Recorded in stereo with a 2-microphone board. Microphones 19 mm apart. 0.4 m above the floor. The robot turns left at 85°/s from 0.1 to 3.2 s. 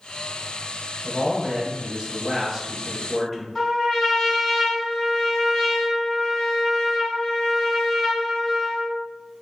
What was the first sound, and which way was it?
A man speaking, 30° right.